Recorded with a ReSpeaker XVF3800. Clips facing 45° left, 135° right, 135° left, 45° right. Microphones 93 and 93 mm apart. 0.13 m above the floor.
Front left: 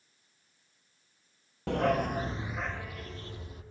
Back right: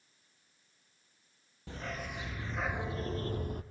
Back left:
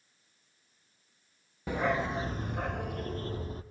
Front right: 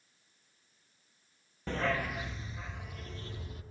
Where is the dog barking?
55° left, 1.1 m; by 3.6 s 170° right, 1.4 m.